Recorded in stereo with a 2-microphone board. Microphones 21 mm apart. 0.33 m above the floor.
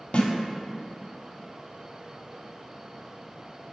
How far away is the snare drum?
About 1.2 m.